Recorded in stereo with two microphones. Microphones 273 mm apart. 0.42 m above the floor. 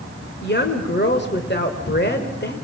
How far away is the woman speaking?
About 1.6 m.